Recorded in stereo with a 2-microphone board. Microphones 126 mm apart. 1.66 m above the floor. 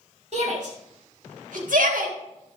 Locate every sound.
0.3 s a shout: 60° right (ahead or behind), 3.5 m; by 2.1 s 85° right, 1.7 m